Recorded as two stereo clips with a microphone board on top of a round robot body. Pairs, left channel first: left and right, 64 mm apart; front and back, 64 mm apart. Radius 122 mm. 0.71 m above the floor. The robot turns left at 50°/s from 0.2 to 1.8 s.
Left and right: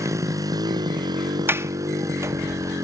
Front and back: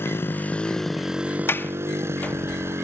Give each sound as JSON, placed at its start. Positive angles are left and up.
{"t": 0.0, "sound": "a motorcycle", "azimuth_deg": -50}
{"t": 1.5, "sound": "a sliding door", "azimuth_deg": -45}